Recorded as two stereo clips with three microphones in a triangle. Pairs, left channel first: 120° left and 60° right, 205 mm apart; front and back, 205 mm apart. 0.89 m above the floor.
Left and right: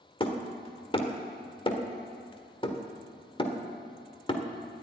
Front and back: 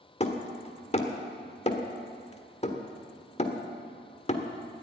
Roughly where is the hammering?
Ahead left.